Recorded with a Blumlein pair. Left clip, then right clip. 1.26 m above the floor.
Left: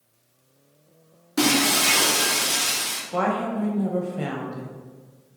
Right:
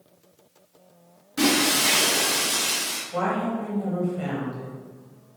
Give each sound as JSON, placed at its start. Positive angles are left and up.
{"t": 1.4, "sound": "breaking glass", "azimuth_deg": 65, "distance_m": 1.1}
{"t": 3.1, "sound": "a woman speaking", "azimuth_deg": 25, "distance_m": 0.8}